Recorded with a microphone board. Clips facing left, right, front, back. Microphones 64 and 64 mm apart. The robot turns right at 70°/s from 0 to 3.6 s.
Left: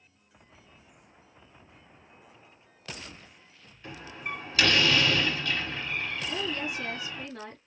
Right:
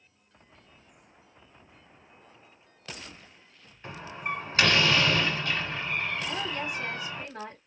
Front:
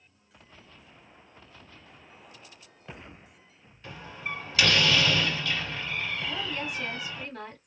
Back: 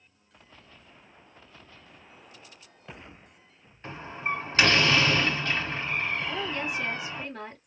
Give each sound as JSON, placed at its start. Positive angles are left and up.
{"t": 3.8, "sound": "a door slam", "azimuth_deg": -140, "distance_m": 2.0}
{"t": 6.2, "sound": "a woman speaking", "azimuth_deg": -110, "distance_m": 1.7}